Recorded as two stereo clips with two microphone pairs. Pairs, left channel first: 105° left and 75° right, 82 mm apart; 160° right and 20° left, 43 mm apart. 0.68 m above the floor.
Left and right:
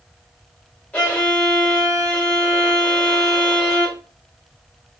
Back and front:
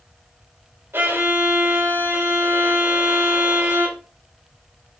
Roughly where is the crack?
No crack in this recording.